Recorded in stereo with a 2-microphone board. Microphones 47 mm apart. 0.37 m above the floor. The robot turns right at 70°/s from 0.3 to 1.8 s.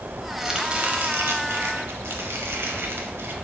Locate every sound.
0.4 s chopping: 175° right, 1.0 m; by 3.3 s 75° right, 1.0 m